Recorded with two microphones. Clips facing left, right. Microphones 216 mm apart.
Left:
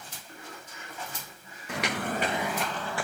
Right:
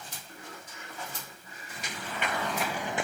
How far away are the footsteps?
About 1.0 m.